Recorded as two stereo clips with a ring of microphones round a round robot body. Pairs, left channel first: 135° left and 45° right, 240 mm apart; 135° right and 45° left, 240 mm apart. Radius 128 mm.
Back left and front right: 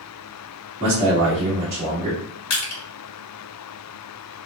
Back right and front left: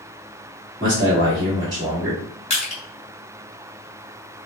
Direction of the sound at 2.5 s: 160° left.